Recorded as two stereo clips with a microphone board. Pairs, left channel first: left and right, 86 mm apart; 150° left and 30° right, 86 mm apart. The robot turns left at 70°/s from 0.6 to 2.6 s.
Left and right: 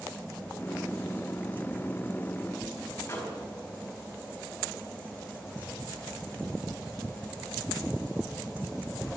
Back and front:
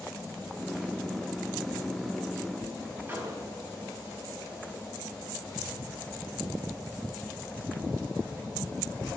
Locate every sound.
3.1 s a microwave: 30° left, 4.5 m